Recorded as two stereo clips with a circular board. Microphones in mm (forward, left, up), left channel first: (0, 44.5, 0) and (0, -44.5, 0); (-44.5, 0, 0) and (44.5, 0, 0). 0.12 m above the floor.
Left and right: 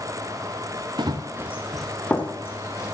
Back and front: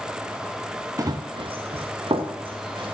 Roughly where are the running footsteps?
Ahead right.